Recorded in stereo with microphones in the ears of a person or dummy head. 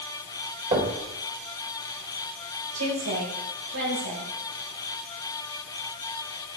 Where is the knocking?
35° right (ahead or behind), 4 m.